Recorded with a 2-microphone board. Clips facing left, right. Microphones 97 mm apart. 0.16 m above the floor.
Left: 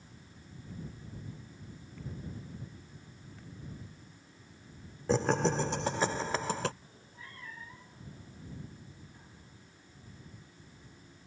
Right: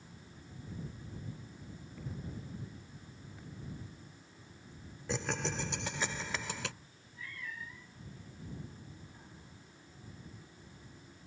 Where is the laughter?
40° left (ahead or behind).